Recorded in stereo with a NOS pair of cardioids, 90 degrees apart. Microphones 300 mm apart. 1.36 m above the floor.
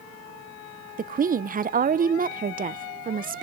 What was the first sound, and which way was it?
A woman speaking, 30° right.